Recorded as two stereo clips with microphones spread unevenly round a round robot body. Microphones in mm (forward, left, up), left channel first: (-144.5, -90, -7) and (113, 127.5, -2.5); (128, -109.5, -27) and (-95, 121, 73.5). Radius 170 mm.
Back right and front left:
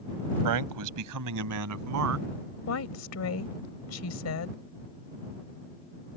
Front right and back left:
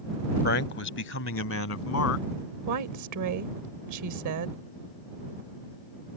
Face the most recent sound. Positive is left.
turn(degrees=175)